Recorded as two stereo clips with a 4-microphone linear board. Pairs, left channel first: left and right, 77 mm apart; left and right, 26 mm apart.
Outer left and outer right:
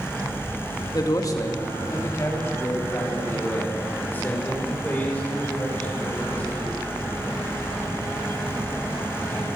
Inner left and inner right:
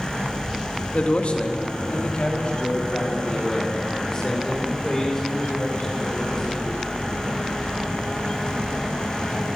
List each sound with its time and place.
0.9 s a man speaking: 50° left (ahead or behind), 1.7 m; by 6.8 s 15° left (ahead or behind), 6 m